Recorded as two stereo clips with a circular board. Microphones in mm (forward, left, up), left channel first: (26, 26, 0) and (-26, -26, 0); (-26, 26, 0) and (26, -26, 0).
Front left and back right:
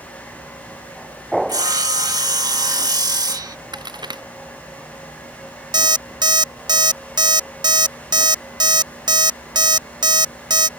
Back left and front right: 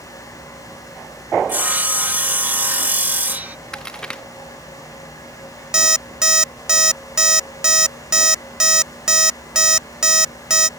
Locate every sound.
1.5 s sawing: 110° right
3.7 s a crack: 145° right
5.7 s an alarm clock: 125° right